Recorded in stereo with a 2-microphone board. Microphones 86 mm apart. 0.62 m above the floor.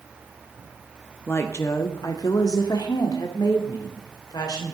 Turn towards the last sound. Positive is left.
turn(degrees=50)  # may be behind; listen again after turning